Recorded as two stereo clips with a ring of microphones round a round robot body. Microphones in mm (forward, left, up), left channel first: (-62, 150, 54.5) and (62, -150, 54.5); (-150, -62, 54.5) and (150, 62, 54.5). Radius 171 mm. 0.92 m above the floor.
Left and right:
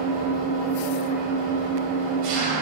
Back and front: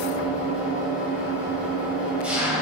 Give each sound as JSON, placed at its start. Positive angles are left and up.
{"t": 0.0, "sound": "an engine running", "azimuth_deg": -65, "distance_m": 5.5}